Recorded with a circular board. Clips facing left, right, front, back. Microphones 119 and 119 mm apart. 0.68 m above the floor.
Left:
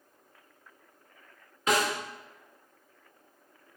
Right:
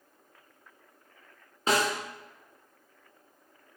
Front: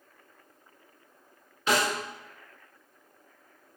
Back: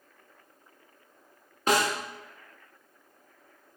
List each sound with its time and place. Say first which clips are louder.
1.7 s a snare drum: even, back 1 dB; 145° right, 0.9 m